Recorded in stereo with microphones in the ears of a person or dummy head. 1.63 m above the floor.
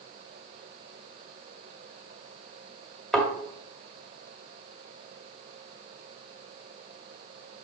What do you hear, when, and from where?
3.1 s a thud: 5° left (ahead or behind), 2.0 m